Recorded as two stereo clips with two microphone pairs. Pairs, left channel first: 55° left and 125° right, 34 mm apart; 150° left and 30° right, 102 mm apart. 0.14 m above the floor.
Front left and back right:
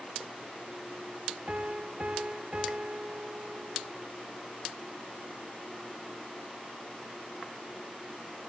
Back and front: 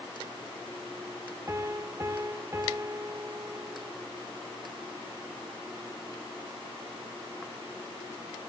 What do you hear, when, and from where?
1.5 s a piano: 85° right, 0.7 m